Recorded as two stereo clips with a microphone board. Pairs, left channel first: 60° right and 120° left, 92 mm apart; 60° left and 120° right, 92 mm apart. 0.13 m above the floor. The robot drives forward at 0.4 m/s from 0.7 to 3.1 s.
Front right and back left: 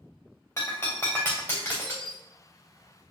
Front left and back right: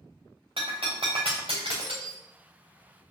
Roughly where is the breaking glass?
Behind right.